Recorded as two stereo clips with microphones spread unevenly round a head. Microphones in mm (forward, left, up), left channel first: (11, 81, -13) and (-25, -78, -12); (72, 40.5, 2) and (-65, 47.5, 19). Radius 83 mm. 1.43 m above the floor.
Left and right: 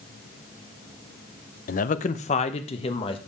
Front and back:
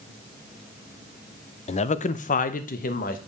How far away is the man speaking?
About 0.7 m.